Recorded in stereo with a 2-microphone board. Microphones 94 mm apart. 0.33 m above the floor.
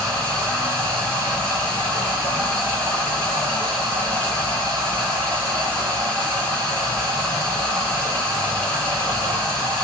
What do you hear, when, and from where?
0.0 s running water: 15° left (ahead or behind), 1.9 m